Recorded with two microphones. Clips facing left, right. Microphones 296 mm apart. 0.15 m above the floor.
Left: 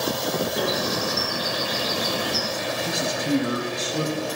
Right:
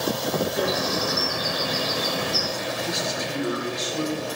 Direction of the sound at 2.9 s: 60° left (ahead or behind).